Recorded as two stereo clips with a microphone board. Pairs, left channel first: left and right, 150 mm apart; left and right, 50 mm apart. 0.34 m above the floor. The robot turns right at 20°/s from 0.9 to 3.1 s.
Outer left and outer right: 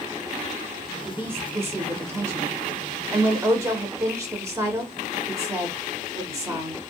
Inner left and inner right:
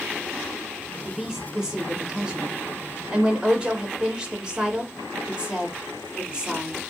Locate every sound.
1.1 s a woman speaking: 15° right (ahead or behind), 0.8 m; by 6.8 s 20° right (ahead or behind), 0.8 m